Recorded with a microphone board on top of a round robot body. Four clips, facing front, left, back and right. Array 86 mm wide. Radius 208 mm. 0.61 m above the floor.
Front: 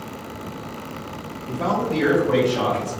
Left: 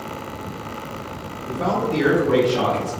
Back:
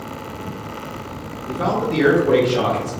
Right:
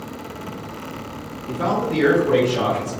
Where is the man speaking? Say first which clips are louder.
Even, back 2 dB; 155° right, 1.4 m; by 2.9 s 155° left, 1.6 m.